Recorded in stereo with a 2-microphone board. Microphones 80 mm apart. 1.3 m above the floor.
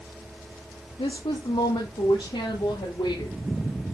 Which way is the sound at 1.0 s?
80° left.